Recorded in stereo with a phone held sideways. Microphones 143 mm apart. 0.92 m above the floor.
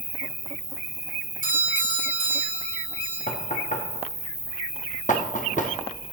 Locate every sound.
0.0 s an insect: 15° right (ahead or behind), 2 m
1.4 s a doorbell: 70° left (ahead or behind), 4 m
3.3 s knocking: 60° left (ahead or behind), 1.0 m